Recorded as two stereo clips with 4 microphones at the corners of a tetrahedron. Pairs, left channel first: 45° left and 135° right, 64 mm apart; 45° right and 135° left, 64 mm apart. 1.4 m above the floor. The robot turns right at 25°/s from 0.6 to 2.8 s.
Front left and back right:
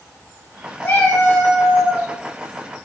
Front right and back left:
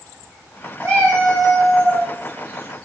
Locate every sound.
0.8 s a cat meowing: 15° left, 1.5 m; by 2.1 s 45° left, 1.5 m